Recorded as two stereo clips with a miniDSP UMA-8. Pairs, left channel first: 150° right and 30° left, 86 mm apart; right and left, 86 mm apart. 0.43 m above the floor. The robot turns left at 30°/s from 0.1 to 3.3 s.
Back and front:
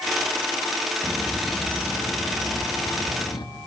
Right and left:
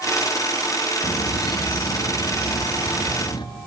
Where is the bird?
55° right, 3.5 m; by 3.5 s 125° right, 3.5 m.